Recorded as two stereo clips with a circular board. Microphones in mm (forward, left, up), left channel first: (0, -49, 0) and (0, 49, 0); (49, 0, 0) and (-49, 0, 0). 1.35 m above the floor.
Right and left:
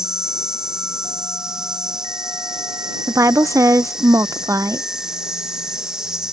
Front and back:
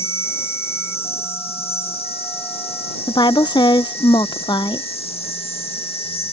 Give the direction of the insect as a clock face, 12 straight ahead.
12 o'clock.